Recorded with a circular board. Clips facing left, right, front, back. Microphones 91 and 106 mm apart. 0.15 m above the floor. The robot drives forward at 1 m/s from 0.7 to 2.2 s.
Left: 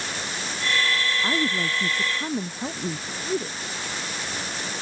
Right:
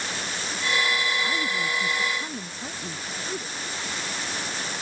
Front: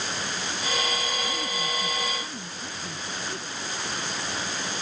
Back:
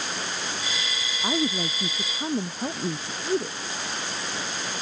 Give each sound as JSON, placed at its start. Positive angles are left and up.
{"t": 1.2, "sound": "a woman speaking", "azimuth_deg": 150}